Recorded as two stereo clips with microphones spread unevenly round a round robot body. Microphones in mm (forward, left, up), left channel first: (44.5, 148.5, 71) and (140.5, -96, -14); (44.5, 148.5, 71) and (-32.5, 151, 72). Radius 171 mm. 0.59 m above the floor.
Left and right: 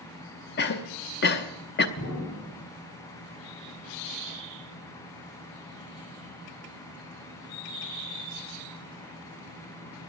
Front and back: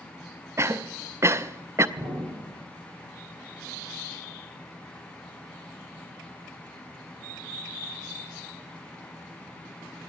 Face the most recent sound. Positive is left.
turn(degrees=160)